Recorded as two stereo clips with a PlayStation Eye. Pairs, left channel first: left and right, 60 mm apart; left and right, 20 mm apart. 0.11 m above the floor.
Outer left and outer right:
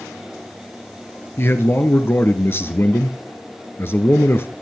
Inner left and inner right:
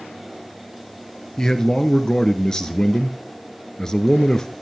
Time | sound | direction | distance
1.4 | a man speaking | 40° left (ahead or behind) | 1.8 m